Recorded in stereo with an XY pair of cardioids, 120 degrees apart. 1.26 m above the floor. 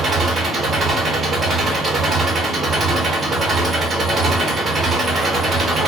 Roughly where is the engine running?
Ahead right.